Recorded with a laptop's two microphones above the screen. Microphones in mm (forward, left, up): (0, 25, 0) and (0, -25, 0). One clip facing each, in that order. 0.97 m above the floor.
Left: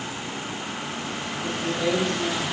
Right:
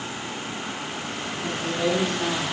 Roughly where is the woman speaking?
Right.